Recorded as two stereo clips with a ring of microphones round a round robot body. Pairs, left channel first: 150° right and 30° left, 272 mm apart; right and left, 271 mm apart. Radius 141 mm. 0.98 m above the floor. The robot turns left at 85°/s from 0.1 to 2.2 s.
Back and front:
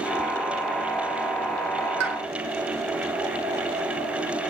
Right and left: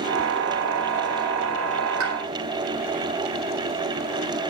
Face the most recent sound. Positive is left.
turn(degrees=45)